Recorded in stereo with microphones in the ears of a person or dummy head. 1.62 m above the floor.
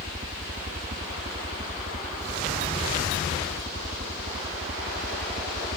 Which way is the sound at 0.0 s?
35° right (ahead or behind).